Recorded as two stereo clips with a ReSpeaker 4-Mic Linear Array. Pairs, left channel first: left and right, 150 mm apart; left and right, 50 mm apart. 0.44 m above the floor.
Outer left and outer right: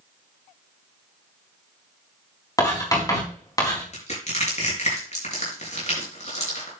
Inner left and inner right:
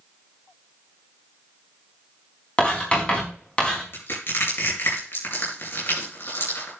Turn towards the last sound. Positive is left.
turn(degrees=50)  # may be behind; listen again after turning